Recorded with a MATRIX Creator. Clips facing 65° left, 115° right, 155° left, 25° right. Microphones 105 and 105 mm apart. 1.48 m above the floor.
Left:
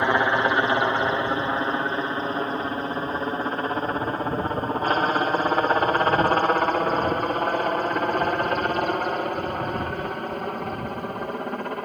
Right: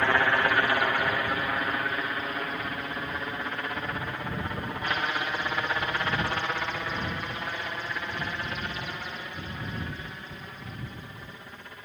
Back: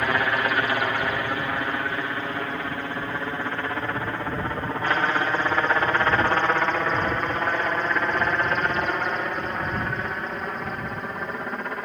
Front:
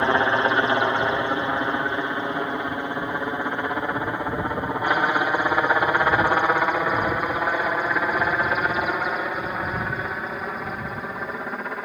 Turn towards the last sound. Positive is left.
turn(degrees=65)